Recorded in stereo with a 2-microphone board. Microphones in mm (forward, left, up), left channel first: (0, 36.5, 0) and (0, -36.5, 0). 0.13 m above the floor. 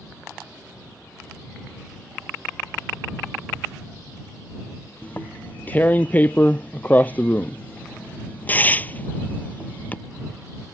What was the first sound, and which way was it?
Tearing paper, 25° left (ahead or behind).